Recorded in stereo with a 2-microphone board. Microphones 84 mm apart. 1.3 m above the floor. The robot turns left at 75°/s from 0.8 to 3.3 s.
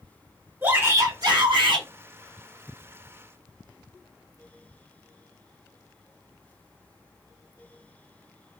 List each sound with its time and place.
0.6 s a shout: 25° right, 1.0 m; by 1.9 s 105° right, 1.0 m